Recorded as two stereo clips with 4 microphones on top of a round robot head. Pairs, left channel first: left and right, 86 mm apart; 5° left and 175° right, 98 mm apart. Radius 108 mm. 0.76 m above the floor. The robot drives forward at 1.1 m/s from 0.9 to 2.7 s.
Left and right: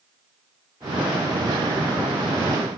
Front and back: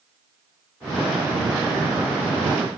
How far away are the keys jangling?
No keys jangling in this recording.